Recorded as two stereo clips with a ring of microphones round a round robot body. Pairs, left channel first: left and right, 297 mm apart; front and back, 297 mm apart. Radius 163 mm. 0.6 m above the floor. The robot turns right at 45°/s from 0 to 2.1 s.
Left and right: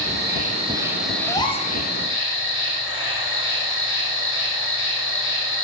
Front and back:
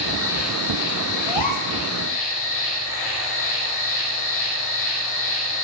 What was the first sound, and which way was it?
An insect, 50° right.